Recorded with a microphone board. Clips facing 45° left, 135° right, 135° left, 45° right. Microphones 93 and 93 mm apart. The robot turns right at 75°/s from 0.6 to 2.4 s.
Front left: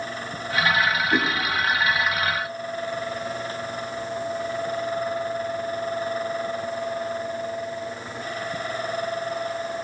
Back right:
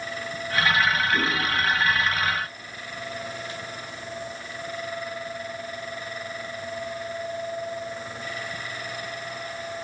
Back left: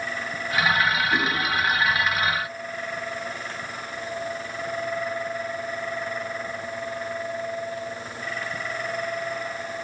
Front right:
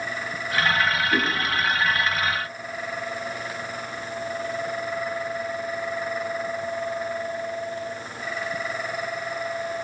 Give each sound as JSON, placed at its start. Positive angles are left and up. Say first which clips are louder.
{"t": 1.1, "sound": "a whoosh", "louder": "front left 2 dB, even", "azimuth_deg": 30, "distance_m": 6.0}